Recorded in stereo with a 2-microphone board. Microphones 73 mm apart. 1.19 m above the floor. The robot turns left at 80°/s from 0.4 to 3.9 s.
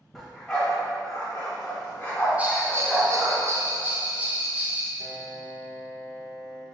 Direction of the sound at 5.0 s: 20° left (ahead or behind).